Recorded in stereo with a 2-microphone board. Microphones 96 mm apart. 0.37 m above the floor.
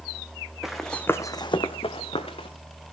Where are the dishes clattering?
No dishes clattering in this recording.